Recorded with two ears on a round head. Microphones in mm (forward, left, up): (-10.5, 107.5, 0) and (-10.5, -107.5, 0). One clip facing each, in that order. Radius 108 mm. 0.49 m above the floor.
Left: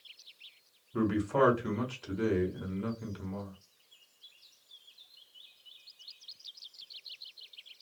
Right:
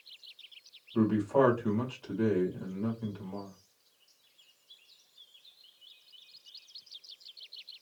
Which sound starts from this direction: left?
A man speaking, at 0.9 s.